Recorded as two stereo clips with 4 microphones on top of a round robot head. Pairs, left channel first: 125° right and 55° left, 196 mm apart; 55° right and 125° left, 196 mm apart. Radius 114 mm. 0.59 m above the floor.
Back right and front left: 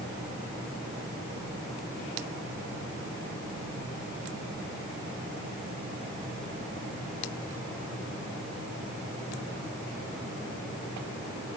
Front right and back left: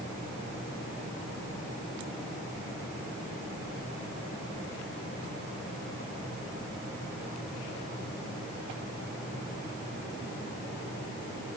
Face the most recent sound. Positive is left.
No sound to turn to.